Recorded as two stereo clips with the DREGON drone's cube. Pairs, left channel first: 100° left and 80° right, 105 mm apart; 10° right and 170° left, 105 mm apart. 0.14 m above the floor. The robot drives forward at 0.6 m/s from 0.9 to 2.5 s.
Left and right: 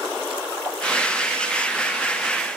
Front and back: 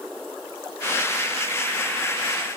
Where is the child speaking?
I don't hear a child speaking.